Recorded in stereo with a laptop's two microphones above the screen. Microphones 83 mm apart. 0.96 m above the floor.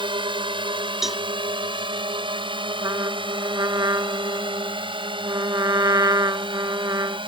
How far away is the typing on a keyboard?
I don't hear typing on a keyboard.